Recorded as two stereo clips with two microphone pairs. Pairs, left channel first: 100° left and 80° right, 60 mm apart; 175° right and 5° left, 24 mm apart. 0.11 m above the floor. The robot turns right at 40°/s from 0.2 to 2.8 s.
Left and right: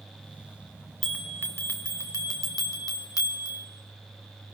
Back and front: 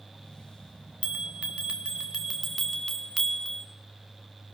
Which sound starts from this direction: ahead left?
A bell, at 1.0 s.